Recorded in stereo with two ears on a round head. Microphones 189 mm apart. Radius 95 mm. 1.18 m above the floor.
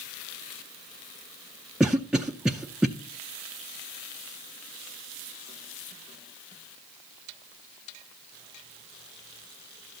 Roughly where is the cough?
Centre.